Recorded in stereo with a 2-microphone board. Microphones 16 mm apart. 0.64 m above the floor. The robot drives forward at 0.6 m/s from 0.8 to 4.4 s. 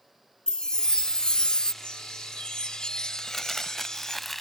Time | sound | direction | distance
0.5 | a chime | 55° left (ahead or behind) | ?
1.8 | a chime | 85° left | ?
3.2 | crumpling | 20° left (ahead or behind) | ?